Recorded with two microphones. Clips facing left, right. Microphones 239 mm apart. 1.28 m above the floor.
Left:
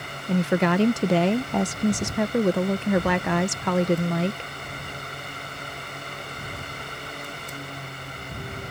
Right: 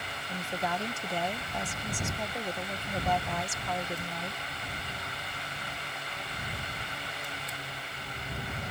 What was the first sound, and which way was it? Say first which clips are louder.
A woman speaking: left 14 dB; 80° left.